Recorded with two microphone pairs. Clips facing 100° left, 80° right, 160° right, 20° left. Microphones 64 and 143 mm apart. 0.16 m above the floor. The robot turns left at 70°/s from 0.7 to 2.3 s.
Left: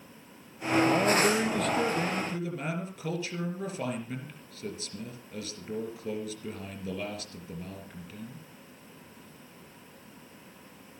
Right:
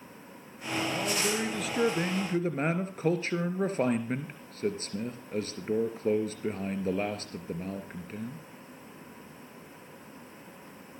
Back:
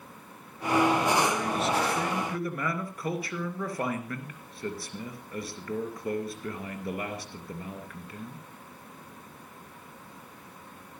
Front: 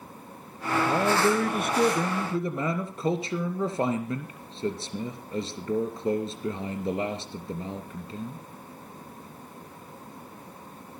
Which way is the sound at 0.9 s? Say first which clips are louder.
Left 5 dB, front 2 dB; 60° left.